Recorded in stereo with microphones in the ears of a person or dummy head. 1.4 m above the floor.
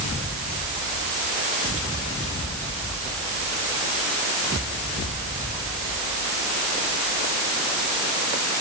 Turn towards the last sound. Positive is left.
No sound to turn to.